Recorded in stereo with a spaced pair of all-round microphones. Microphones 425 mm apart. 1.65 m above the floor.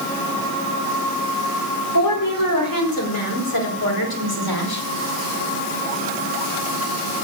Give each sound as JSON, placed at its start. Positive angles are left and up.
{"t": 1.9, "sound": "a woman speaking", "side_deg": 50, "distance_m": 5.0}